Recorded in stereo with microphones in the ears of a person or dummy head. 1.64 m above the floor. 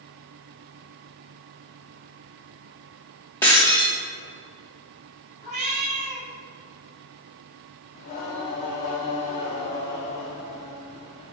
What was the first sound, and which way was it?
Breaking glass, 15° left (ahead or behind).